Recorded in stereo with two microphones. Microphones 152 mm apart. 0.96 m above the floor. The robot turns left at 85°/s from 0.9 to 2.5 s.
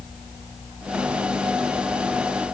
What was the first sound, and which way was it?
Only background noise.